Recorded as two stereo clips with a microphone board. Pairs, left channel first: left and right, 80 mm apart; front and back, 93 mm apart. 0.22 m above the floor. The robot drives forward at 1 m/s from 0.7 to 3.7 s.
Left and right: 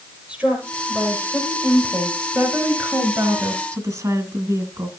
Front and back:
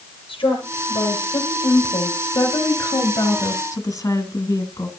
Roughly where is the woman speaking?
Ahead.